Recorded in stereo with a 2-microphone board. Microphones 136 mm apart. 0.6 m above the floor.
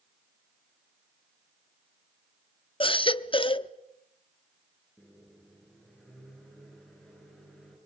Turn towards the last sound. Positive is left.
turn(degrees=0)  # may be behind; listen again after turning